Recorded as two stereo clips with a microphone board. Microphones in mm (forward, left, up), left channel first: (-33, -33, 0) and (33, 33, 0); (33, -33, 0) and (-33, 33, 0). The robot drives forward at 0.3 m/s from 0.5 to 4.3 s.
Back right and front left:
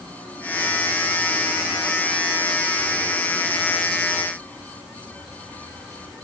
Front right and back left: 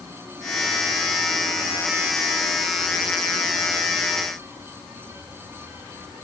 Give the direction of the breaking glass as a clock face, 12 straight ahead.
No breaking glass in this recording.